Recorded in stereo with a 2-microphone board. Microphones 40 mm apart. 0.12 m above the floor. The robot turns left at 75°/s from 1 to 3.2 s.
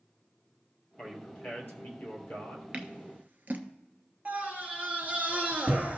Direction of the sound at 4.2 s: 40° right (ahead or behind).